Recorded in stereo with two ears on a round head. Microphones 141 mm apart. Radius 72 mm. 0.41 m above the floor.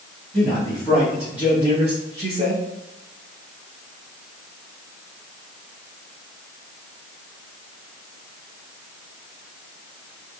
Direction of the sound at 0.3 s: 10° left (ahead or behind).